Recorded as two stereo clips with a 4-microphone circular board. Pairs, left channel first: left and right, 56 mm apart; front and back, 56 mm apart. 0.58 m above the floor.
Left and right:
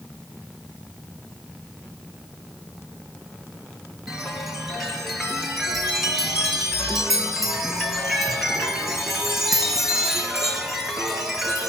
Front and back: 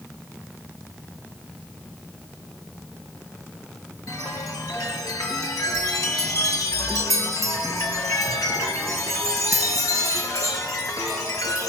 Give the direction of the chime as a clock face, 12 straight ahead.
12 o'clock.